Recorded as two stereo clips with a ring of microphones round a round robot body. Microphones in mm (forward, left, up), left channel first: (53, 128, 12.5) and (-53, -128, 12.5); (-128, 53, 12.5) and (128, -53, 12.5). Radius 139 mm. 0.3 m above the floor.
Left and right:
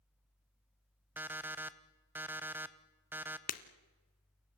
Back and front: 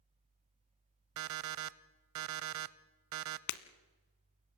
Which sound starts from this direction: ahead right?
An alarm clock, at 1.2 s.